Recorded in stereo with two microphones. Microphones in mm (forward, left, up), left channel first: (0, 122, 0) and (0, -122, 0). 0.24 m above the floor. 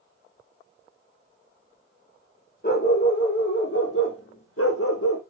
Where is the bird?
I don't hear a bird.